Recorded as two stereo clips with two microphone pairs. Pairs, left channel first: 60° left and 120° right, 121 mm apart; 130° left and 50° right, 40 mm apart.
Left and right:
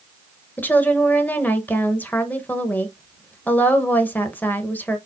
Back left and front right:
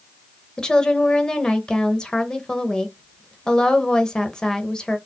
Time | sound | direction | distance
0.6 | a woman speaking | 110° left | 0.9 m